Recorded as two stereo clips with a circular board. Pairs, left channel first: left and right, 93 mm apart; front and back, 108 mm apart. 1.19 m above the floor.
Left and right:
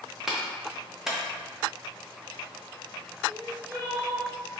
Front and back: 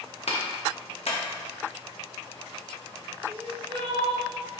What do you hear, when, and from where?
0.3 s a clap: 5° right, 0.9 m
3.3 s crying: 145° right, 1.4 m